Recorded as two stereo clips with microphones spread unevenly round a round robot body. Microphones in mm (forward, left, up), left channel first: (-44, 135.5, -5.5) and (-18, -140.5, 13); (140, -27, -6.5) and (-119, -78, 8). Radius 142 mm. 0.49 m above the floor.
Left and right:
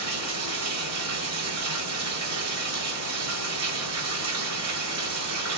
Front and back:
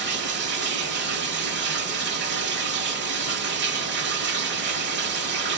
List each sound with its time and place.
0.0 s running water: 120° right, 1.3 m